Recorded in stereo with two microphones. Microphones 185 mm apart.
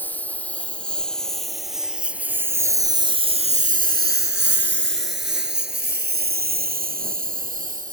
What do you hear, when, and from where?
0.0 s a lawn mower: 10° left (ahead or behind); by 7.9 s 45° right (ahead or behind)